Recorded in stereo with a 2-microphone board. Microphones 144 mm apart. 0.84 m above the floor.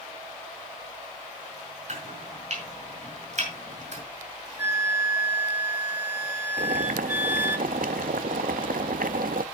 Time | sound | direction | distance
1.9 | chopping | 60° right (ahead or behind) | 5.5 m
4.6 | a flute | 15° right (ahead or behind) | 0.8 m
6.6 | boiling | 75° right (ahead or behind) | 0.5 m